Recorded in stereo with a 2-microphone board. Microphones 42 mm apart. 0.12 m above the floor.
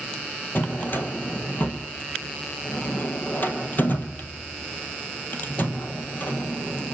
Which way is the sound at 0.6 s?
50° left (ahead or behind).